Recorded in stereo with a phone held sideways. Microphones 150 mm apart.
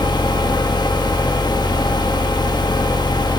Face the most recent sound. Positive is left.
turn(degrees=30)  # may be behind; listen again after turning